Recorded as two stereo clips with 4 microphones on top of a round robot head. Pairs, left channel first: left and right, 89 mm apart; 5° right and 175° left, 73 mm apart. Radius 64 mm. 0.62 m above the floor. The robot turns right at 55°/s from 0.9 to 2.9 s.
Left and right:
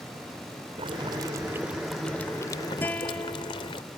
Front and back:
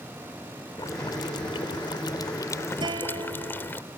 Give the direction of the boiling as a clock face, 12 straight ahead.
2 o'clock.